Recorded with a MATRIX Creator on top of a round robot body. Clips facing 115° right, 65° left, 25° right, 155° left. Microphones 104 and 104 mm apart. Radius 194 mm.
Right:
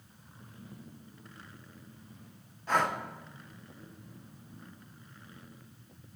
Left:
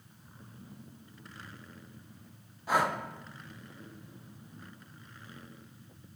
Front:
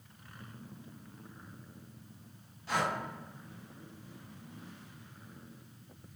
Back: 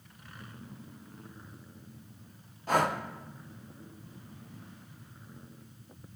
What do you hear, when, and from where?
2.7 s breathing: 145° left, 0.8 m